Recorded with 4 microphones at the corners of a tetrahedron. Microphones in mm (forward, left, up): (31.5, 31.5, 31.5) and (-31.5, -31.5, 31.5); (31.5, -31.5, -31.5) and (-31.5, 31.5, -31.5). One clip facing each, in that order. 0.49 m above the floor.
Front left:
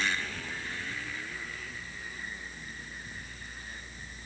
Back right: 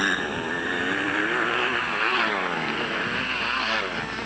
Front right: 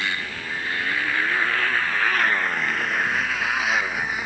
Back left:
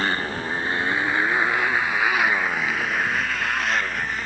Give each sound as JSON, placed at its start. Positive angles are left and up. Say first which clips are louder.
{"t": 0.0, "sound": "a motorcycle", "louder": "back right 9 dB, back left 4 dB", "azimuth_deg": -175}